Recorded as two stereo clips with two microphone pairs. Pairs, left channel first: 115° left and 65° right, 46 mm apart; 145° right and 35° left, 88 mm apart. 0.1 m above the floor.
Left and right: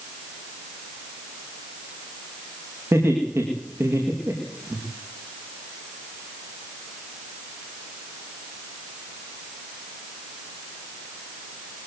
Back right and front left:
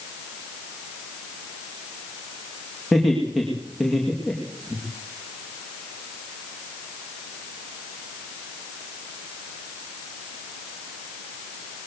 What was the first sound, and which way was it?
Laughter, 50° right.